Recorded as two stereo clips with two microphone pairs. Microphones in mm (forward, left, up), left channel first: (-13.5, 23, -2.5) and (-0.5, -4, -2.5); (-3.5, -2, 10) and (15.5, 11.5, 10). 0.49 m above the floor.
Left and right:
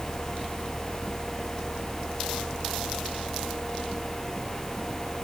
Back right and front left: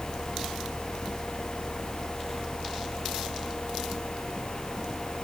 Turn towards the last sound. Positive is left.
No sound to turn to.